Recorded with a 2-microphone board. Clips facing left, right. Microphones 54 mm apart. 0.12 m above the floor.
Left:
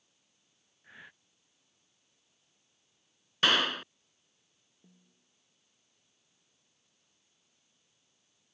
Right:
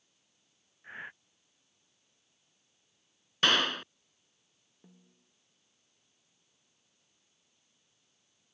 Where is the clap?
5° left (ahead or behind).